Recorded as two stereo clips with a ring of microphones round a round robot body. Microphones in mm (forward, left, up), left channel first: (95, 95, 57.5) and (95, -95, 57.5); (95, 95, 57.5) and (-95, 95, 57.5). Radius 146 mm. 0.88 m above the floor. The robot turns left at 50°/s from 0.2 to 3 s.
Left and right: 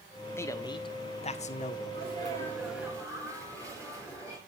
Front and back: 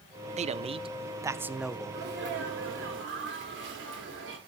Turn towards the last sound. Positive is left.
turn(degrees=170)